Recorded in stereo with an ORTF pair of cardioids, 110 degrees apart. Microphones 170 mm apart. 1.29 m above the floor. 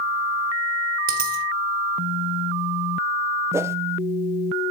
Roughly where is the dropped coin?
Ahead right.